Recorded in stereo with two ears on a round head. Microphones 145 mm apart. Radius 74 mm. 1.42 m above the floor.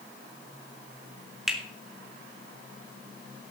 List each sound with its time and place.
1.5 s a finger snap: centre (ahead or behind), 2.5 m